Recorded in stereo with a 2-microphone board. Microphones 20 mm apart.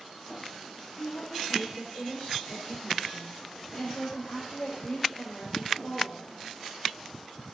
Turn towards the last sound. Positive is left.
turn(degrees=65)  # may be behind; listen again after turning